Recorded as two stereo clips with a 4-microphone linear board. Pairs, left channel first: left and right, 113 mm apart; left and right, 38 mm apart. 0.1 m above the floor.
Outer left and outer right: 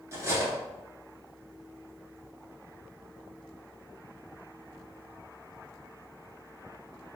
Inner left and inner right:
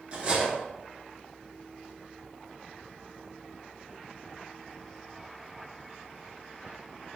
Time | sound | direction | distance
0.1 | cutlery clinking | 25° right (ahead or behind) | 0.9 m